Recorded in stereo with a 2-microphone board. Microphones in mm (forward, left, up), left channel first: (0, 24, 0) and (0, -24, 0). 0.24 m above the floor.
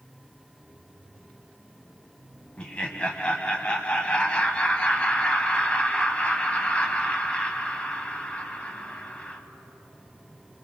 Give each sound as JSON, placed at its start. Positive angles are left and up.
{"t": 2.6, "sound": "laughter", "side_deg": 25, "distance_m": 1.2}